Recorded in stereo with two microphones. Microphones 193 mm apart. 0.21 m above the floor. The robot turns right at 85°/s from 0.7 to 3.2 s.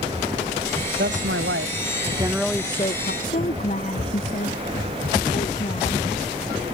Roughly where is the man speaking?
Behind right.